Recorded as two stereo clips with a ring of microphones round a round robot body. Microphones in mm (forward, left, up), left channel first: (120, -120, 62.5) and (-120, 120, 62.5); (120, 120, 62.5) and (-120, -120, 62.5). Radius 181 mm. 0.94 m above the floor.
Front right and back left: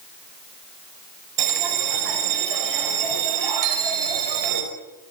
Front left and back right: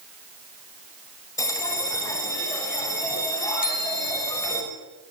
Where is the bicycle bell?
110° left, 4.5 m.